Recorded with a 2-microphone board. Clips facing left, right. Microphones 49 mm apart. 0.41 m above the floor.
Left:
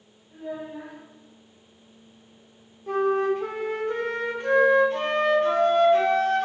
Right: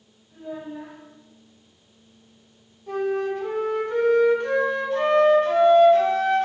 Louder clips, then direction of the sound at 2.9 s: Left 2 dB; 40° left (ahead or behind).